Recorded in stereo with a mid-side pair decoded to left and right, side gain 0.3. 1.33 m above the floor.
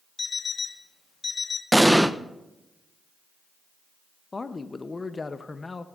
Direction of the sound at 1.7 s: 5° right.